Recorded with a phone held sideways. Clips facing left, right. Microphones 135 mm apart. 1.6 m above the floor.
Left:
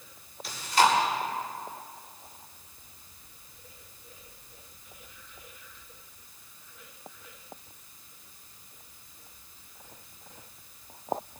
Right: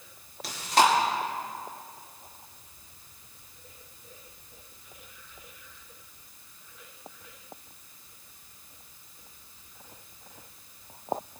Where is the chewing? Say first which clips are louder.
Right 1 dB; 80° right, 2.5 m.